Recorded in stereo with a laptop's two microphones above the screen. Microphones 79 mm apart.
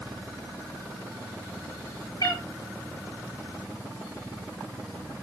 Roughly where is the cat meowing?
Left.